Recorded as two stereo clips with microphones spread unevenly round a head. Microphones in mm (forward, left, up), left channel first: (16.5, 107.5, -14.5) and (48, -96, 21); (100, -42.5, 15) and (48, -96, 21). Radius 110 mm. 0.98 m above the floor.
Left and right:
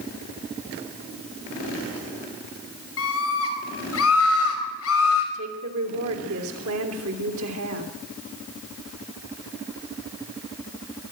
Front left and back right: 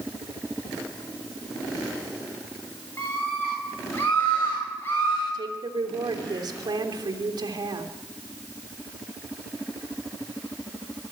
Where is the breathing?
No breathing in this recording.